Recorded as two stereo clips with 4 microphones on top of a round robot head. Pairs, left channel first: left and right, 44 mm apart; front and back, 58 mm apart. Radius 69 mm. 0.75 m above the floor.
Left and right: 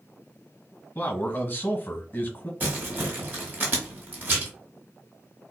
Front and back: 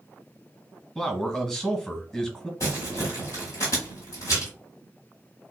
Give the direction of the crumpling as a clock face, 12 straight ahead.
1 o'clock.